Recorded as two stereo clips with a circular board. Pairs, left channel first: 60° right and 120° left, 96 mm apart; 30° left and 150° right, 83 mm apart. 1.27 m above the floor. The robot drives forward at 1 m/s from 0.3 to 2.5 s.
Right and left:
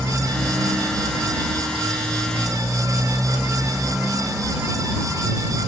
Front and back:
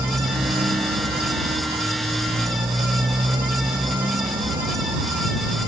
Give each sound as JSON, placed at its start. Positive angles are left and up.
{"t": 0.0, "sound": "a motorcycle", "azimuth_deg": -145}